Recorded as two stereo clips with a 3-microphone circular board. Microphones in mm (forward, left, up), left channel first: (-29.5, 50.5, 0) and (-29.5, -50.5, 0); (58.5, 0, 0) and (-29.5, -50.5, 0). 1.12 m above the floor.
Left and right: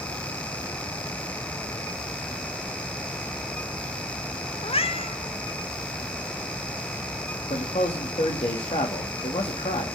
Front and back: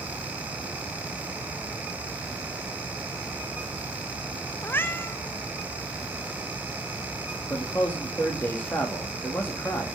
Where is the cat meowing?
95° left, 0.9 m.